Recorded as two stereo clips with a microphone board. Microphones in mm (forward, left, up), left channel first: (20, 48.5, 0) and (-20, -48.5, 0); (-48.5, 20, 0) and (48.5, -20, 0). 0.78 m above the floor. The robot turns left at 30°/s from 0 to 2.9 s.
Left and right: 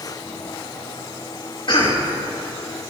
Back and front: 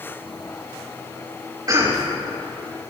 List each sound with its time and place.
1.7 s a cough: 30° left, 4.5 m; by 2.0 s 20° left, 4.5 m